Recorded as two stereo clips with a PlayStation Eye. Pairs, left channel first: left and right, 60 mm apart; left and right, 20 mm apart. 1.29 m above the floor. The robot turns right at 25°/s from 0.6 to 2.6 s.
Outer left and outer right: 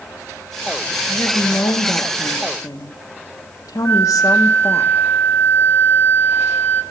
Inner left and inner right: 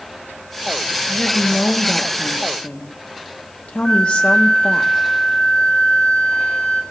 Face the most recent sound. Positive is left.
turn(degrees=30)  # may be behind; listen again after turning